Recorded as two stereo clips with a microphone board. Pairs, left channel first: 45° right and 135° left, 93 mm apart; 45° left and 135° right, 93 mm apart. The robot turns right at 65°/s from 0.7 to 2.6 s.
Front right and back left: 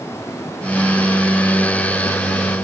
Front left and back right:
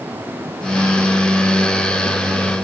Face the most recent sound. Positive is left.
No sound to turn to.